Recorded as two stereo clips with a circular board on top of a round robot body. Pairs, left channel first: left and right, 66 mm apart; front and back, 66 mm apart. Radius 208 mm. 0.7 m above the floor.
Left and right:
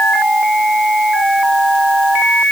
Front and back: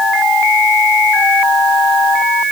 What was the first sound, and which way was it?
Only background noise.